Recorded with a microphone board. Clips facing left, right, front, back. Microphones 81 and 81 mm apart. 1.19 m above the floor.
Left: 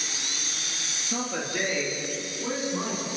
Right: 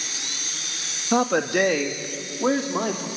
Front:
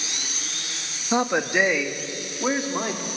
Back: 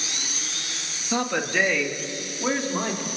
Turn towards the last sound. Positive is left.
turn(degrees=-80)